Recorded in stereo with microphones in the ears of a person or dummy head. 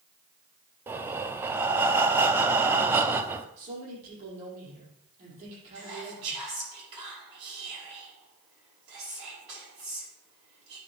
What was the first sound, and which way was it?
Breathing, 10° right (ahead or behind).